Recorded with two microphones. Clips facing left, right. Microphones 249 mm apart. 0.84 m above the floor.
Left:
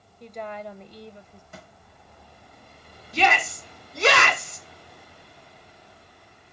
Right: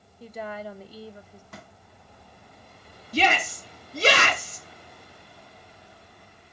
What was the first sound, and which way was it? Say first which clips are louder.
A woman speaking: even; 5° right (ahead or behind).